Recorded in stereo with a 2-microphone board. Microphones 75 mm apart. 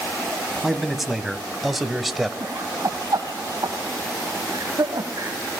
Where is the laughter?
55° right (ahead or behind), 1.9 m.